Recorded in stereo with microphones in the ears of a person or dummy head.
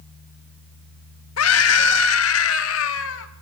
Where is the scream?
80° left, 1.8 m; by 3.3 s 75° left (ahead or behind), 2.5 m.